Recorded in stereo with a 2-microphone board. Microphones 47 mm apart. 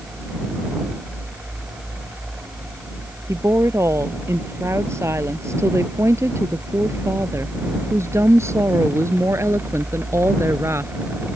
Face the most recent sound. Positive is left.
turn(degrees=-80)